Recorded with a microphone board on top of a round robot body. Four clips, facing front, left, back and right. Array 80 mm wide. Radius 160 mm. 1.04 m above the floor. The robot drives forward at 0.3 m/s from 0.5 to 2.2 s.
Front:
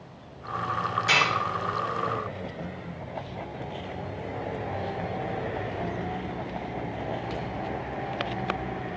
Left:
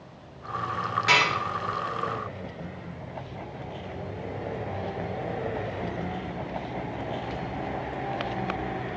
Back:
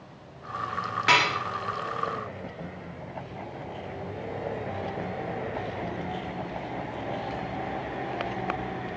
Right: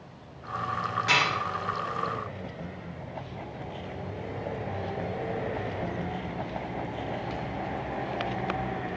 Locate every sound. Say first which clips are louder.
1.1 s dishes clattering: left 3 dB, back 3 dB; 165° left, 1.7 m